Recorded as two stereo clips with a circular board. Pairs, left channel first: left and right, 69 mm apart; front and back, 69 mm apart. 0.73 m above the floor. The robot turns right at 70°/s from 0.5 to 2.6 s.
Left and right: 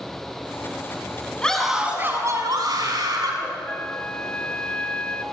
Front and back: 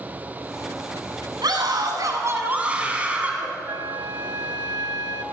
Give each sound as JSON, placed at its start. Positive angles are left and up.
{"t": 1.4, "sound": "a scream", "azimuth_deg": 165, "distance_m": 6.5}
{"t": 3.7, "sound": "a flute", "azimuth_deg": 160, "distance_m": 1.5}